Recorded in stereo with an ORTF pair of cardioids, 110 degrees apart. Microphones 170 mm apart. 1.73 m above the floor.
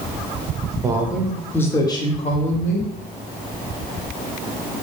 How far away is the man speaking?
About 0.8 m.